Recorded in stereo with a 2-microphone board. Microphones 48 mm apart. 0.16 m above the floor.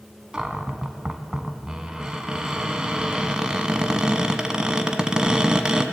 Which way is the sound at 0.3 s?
20° right (ahead or behind).